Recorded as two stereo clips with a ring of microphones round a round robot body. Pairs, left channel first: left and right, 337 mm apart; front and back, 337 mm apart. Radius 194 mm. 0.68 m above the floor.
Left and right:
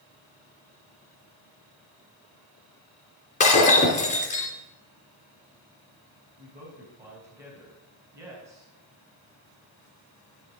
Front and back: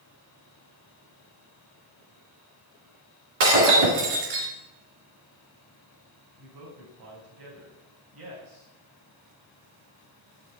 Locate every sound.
3.4 s breaking glass: 160° left, 3 m
6.4 s a man speaking: 170° right, 4.5 m